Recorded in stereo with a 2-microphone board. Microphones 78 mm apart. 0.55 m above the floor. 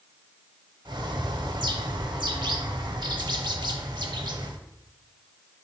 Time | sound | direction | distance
0.8 | a bird | 70° right (ahead or behind) | 0.6 m